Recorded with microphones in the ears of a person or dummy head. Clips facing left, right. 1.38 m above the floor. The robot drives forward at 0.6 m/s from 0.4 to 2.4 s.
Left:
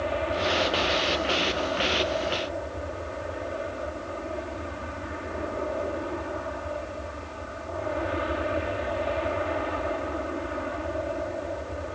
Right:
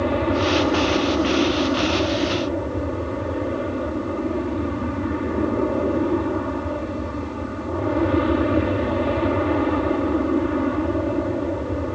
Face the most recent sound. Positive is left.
turn(degrees=-65)  # may be behind; listen again after turning